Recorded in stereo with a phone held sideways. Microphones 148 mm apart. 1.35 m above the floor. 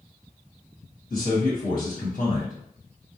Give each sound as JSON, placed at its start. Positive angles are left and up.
{"t": 1.1, "sound": "a man speaking", "side_deg": 75, "distance_m": 1.5}